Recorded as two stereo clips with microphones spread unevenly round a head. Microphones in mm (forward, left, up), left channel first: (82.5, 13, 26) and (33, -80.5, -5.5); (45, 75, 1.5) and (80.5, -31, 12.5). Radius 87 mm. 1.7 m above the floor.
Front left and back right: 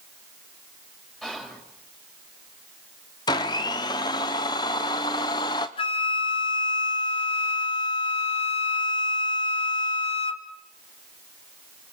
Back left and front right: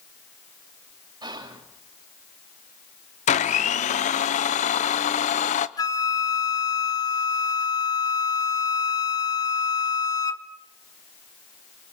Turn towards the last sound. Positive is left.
turn(degrees=50)